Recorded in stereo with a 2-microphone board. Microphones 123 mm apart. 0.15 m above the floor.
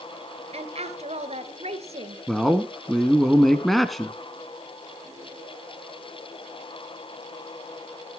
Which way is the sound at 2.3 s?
Centre (ahead or behind).